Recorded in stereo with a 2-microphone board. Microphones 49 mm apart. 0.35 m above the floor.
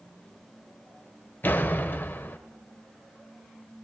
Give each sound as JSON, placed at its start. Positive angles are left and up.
{"t": 1.4, "sound": "a door slam", "side_deg": 40, "distance_m": 1.2}